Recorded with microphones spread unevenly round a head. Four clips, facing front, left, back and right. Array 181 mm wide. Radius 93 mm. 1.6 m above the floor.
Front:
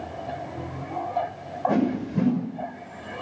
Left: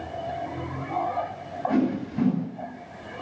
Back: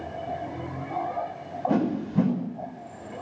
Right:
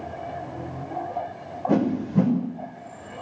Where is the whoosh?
80° right, 6 m.